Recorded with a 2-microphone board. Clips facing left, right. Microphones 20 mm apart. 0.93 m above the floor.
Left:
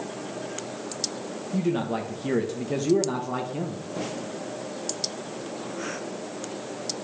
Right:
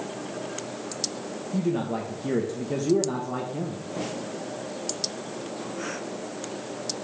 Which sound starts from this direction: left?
A man speaking, at 1.5 s.